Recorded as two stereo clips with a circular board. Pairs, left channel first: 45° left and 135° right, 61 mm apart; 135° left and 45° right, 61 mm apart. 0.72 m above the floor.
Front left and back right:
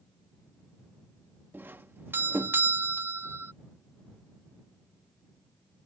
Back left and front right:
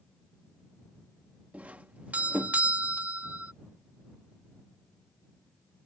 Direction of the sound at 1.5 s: 100° right.